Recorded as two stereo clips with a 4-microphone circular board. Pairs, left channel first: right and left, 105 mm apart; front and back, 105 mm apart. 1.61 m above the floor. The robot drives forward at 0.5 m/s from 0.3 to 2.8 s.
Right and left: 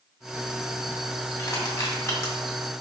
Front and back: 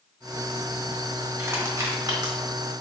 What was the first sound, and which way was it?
Crushing, 125° right.